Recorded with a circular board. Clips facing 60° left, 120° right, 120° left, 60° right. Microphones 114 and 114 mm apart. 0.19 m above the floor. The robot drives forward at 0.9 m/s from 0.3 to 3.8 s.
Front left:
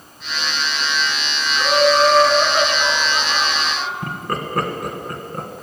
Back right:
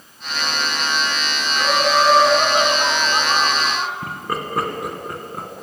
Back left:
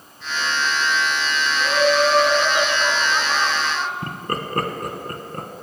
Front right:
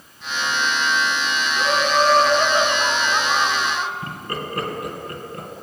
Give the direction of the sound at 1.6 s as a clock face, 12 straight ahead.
1 o'clock.